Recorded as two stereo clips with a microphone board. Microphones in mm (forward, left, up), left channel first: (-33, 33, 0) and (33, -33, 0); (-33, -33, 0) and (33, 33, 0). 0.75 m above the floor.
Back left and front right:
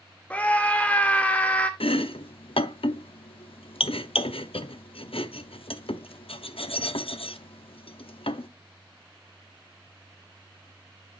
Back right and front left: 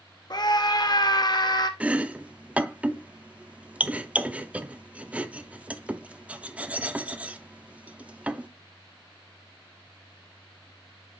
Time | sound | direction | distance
0.3 | a scream | 155° right | 0.7 m
1.8 | chopping | 120° left | 0.5 m